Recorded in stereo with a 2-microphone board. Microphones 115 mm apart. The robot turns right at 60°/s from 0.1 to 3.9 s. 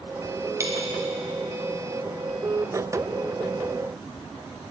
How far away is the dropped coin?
About 2.5 m.